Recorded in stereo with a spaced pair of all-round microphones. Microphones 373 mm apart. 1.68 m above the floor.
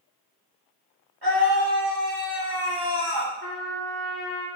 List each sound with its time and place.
1.2 s a scream: 85° right, 7.5 m
3.4 s a trumpet: 35° left (ahead or behind), 4.5 m